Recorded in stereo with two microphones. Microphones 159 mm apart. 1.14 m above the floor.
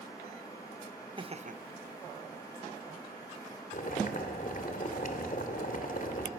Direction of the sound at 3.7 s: 60° left (ahead or behind).